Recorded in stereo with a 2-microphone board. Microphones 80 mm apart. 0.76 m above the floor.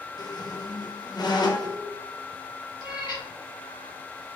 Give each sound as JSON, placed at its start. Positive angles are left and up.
{"t": 0.2, "sound": "a squeak", "side_deg": 60, "distance_m": 0.5}
{"t": 2.8, "sound": "a cat meowing", "side_deg": 55, "distance_m": 2.0}